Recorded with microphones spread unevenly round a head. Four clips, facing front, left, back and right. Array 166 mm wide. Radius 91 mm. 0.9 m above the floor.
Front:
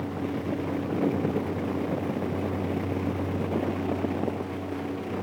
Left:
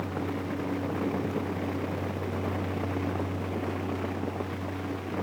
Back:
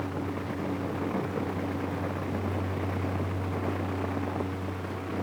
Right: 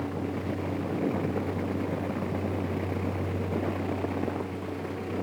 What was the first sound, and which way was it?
Only background noise.